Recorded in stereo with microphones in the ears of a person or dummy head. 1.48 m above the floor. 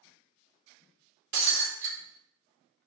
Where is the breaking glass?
55° right (ahead or behind), 1.7 m.